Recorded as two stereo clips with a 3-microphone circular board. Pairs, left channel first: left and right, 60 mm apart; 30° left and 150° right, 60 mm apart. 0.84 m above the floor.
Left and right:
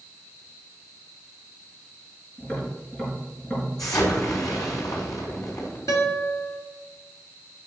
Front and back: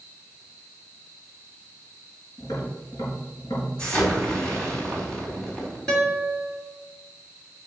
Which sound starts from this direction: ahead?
Tapping, at 2.4 s.